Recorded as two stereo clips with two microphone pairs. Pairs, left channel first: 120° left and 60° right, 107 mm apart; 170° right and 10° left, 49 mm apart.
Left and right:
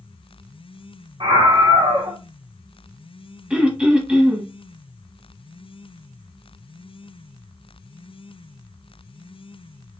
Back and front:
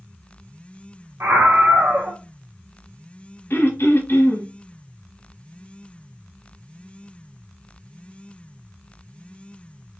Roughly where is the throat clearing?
Behind right.